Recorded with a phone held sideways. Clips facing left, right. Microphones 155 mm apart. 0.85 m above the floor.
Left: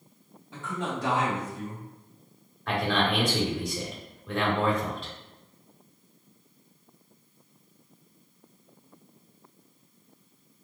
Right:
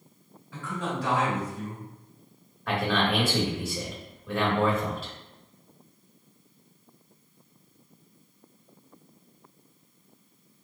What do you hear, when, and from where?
0.5 s a man speaking: 25° left (ahead or behind), 1.8 m
2.7 s a man speaking: 5° right (ahead or behind), 1.4 m